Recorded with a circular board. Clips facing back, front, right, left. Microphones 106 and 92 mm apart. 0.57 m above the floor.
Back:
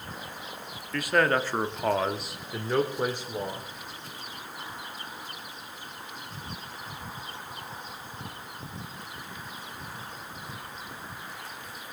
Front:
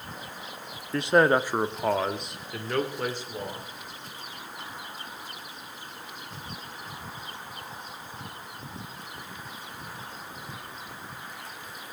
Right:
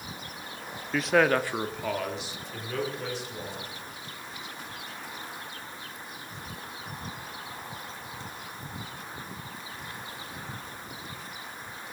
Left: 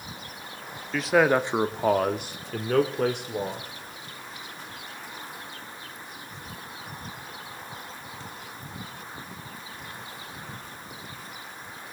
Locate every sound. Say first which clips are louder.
0.9 s a man speaking: front 4 dB, left 2 dB; 10° right, 0.7 m; by 3.7 s 105° left, 1.8 m